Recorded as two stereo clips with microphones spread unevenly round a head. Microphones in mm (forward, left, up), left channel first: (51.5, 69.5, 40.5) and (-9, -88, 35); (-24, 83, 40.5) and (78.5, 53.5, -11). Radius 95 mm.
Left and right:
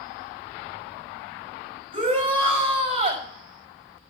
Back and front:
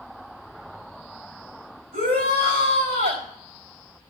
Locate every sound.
1.9 s a shout: 50° right, 5 m